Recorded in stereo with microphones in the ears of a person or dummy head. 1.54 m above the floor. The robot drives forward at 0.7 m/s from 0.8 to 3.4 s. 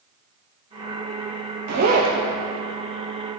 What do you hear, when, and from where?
1.7 s a zipper: 65° right (ahead or behind), 0.8 m; by 2.1 s 45° right (ahead or behind), 1.0 m